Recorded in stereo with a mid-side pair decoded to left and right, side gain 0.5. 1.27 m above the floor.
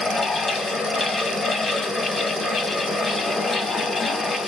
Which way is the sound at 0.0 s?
30° left.